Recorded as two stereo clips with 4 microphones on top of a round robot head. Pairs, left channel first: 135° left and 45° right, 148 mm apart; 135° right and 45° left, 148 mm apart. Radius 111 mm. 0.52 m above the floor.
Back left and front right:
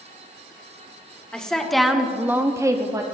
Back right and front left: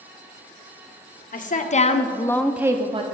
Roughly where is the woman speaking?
Behind right.